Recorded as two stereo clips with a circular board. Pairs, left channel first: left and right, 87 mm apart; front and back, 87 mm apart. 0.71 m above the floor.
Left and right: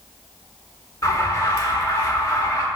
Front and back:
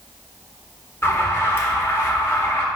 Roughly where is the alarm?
Ahead left.